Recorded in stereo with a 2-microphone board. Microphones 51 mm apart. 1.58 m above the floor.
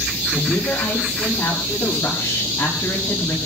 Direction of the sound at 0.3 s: 85° left.